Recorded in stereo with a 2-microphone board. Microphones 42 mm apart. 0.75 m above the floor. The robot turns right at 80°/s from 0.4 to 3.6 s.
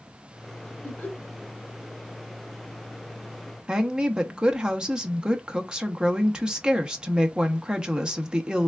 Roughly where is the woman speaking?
Centre.